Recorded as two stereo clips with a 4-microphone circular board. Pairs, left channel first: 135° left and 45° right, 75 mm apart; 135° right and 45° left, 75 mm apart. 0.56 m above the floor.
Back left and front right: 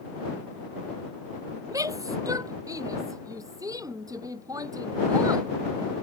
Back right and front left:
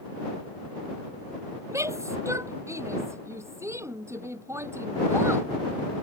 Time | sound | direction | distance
1.7 | a shout | 5° right | ?